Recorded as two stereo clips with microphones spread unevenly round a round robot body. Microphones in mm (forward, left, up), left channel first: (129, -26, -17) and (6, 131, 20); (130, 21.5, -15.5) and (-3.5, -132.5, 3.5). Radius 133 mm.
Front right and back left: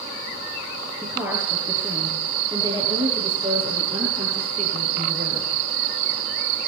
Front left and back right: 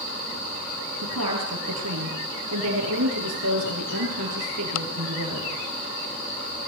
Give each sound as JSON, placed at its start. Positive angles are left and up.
{"t": 1.0, "sound": "a woman speaking", "azimuth_deg": -150, "distance_m": 8.5}